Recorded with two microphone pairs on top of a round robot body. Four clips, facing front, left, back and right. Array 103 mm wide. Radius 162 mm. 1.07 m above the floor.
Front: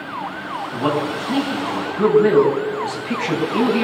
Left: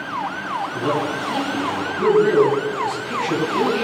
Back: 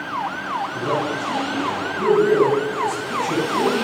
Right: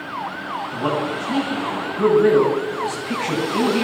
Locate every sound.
0.7 s a man speaking: 30° right, 9 m